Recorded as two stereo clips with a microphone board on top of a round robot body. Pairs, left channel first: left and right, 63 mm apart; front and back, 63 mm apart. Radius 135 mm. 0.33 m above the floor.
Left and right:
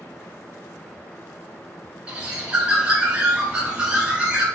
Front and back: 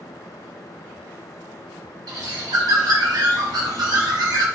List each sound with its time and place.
2.1 s a bird: 160° right, 0.9 m